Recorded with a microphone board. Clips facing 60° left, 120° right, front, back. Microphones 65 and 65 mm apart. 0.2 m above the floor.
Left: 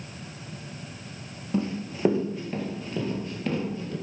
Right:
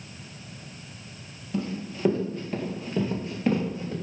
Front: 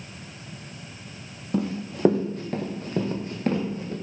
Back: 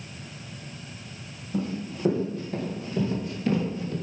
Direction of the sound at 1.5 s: Straight ahead.